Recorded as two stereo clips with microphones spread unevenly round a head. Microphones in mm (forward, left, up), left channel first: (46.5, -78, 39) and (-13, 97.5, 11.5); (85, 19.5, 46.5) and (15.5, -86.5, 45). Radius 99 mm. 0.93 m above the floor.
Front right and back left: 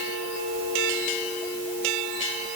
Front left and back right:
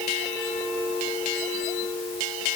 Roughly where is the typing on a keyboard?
I don't hear typing on a keyboard.